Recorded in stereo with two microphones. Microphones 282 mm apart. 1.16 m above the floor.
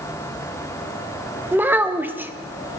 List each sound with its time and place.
1.5 s a child speaking: 5° right (ahead or behind), 0.7 m